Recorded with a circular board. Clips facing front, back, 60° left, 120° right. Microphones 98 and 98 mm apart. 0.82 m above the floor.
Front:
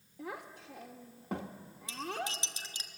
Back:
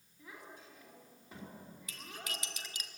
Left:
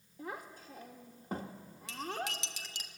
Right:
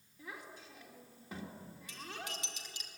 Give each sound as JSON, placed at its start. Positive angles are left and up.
{"t": 0.2, "sound": "a child speaking", "azimuth_deg": 15, "distance_m": 1.8}
{"t": 1.9, "sound": "cutlery clinking", "azimuth_deg": 60, "distance_m": 1.3}